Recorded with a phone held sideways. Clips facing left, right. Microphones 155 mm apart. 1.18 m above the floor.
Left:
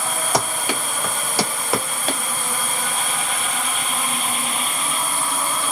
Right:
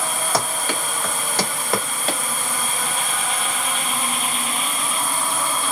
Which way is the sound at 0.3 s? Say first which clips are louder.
Left 2 dB; 15° left (ahead or behind).